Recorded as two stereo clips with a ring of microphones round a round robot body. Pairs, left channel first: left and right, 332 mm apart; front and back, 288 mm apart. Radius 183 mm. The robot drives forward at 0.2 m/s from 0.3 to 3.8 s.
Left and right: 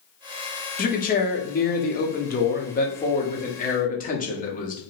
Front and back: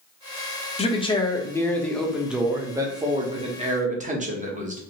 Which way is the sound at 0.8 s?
50° left.